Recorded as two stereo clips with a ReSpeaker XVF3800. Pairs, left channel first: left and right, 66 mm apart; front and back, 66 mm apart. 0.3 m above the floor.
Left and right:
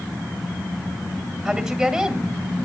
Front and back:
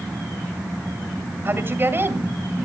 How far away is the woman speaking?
About 1.7 m.